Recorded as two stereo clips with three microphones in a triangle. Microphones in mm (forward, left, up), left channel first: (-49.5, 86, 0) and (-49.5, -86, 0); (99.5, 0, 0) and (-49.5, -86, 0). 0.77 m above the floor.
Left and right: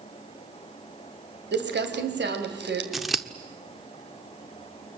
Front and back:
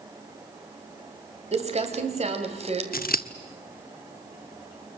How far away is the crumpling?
About 2.5 m.